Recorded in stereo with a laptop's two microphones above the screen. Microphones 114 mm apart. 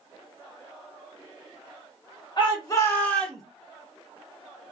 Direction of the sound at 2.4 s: 40° left (ahead or behind).